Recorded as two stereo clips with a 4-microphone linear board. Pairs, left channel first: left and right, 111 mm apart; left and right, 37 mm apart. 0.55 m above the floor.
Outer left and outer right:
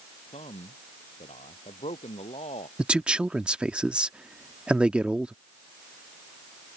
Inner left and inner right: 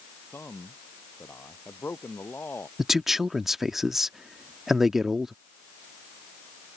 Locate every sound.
0.3 s a man speaking: 75° left (ahead or behind)
2.8 s a man speaking: 10° right (ahead or behind)